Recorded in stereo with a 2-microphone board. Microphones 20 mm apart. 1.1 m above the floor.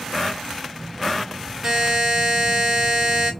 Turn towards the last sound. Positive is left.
turn(degrees=-35)  # may be behind; listen again after turning